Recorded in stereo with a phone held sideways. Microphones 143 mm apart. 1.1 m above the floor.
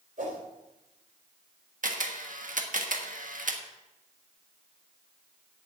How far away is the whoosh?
About 3.5 m.